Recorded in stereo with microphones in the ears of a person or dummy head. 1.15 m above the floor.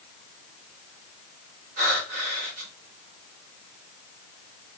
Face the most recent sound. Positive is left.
turn(degrees=-50)  # may be behind; listen again after turning